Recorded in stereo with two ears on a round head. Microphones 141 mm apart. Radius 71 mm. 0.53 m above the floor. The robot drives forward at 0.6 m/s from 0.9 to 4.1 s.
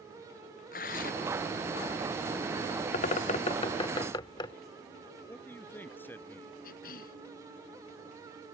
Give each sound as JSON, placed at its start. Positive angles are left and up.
{"t": 0.7, "sound": "tearing paper", "side_deg": 55}
{"t": 2.9, "sound": "a bird", "side_deg": 45}
{"t": 5.3, "sound": "a man speaking", "side_deg": 10}
{"t": 6.6, "sound": "a cough", "side_deg": 60}